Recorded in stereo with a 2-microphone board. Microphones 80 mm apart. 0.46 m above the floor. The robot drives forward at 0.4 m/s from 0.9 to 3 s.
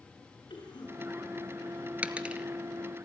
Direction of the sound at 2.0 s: 20° right (ahead or behind).